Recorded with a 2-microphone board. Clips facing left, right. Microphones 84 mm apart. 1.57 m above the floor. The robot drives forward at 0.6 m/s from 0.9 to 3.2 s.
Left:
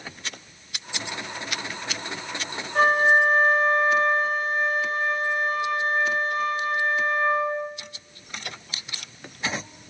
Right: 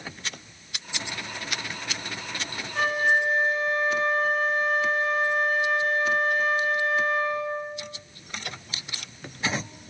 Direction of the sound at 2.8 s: 60° left (ahead or behind).